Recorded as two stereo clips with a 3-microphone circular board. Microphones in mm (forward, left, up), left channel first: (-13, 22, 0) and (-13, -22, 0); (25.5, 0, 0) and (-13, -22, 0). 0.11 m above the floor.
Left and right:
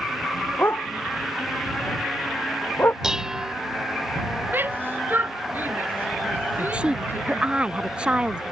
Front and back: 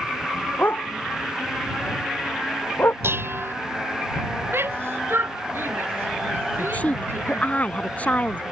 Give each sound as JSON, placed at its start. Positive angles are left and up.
{"t": 0.6, "sound": "a dog barking", "azimuth_deg": 65}
{"t": 3.0, "sound": "dishes clattering", "azimuth_deg": -165}
{"t": 4.5, "sound": "a shout", "azimuth_deg": -125}
{"t": 6.6, "sound": "a woman speaking", "azimuth_deg": -20}